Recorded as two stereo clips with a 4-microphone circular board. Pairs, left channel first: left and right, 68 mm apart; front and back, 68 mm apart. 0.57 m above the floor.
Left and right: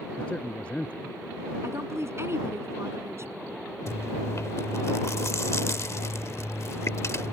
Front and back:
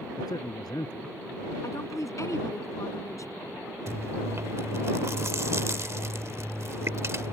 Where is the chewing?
135° left.